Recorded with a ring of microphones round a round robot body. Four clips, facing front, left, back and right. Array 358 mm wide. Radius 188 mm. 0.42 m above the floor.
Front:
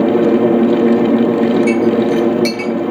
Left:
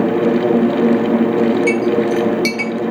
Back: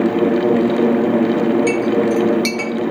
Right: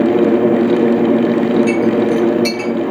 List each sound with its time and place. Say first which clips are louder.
1.7 s a clink: right 2 dB, front 3 dB; 125° left, 1.1 m